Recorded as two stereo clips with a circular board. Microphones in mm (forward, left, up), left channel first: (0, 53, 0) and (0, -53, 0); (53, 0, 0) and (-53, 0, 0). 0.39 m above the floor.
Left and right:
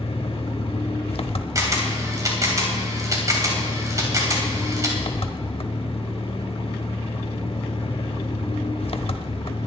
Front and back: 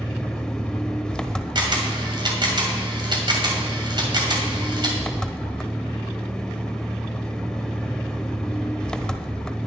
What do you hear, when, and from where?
0.0 s an engine running: 80° left, 0.8 m
1.6 s a camera shutter: 145° right, 2.5 m